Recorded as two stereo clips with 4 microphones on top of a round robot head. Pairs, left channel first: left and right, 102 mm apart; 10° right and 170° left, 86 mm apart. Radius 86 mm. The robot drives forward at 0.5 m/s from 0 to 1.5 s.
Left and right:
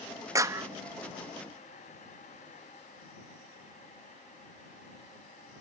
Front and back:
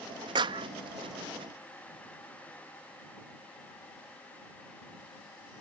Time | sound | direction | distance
0.3 | a clap | 150° right | ?